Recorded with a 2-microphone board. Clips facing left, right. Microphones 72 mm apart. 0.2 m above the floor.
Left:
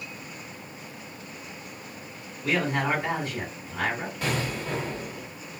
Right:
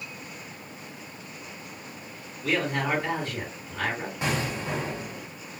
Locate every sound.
2.4 s a man speaking: 15° left (ahead or behind), 1.9 m
4.2 s an explosion: 20° right (ahead or behind), 1.6 m